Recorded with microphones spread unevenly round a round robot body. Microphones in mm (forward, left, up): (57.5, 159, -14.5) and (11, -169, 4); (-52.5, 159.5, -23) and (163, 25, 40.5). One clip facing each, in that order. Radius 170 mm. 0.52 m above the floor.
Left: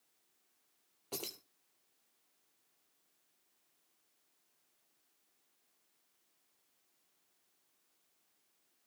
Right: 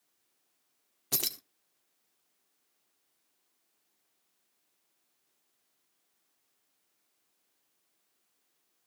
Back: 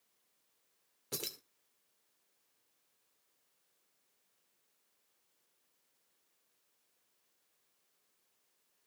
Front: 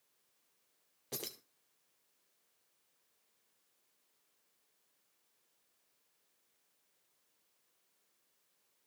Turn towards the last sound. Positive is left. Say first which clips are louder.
# right 2 dB, back 1 dB
turn(degrees=-145)